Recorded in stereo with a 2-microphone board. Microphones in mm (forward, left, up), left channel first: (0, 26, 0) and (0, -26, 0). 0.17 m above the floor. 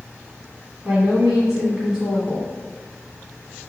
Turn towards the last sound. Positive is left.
turn(degrees=-15)  # may be behind; listen again after turning